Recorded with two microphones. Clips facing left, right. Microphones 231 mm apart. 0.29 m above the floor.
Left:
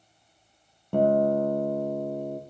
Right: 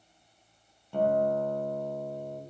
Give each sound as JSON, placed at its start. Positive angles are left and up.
{"t": 0.9, "sound": "a guitar", "side_deg": 60, "distance_m": 4.0}